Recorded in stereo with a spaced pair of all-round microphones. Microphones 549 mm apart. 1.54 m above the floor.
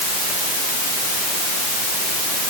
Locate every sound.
Only background noise.